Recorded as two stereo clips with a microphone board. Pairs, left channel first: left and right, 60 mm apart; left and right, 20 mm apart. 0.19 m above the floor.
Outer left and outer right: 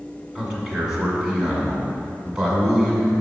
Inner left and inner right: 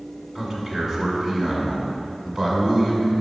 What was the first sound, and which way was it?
A man speaking, 10° right (ahead or behind).